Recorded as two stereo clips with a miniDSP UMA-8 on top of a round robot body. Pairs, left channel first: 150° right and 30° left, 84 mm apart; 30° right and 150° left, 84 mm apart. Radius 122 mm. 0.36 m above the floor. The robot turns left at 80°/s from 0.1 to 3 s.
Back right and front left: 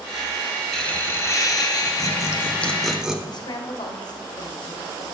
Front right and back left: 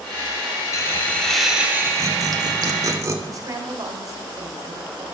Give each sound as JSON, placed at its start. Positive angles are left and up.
{"t": 0.7, "sound": "laughter", "azimuth_deg": -65, "distance_m": 2.0}
{"t": 3.3, "sound": "a woman speaking", "azimuth_deg": -170, "distance_m": 1.8}